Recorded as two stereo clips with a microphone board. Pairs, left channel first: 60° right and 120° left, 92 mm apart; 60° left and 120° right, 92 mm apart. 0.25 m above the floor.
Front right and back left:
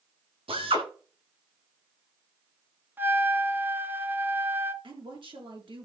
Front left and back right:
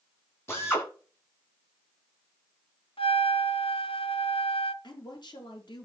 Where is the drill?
125° left, 9 m.